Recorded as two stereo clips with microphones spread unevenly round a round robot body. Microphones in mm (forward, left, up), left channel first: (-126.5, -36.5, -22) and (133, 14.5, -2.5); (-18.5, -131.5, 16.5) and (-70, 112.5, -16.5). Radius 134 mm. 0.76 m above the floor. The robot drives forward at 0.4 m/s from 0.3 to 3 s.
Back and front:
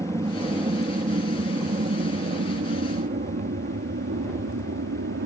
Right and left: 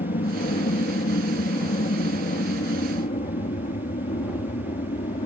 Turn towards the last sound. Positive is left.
turn(degrees=-15)